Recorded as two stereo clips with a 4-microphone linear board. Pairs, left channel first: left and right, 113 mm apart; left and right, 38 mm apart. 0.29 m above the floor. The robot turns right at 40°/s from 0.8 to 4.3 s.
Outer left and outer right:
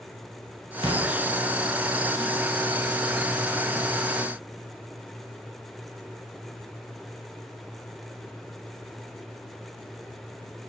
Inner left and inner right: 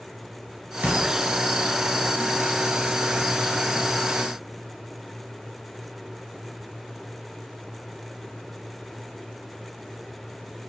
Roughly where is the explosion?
Right.